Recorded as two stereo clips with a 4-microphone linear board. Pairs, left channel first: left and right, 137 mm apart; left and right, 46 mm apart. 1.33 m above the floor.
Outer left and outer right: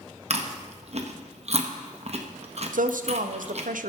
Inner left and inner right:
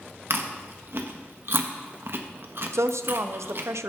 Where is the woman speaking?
75° right (ahead or behind), 0.5 m.